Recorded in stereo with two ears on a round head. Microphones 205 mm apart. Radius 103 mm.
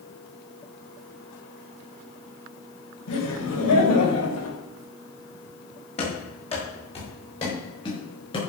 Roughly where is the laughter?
Left.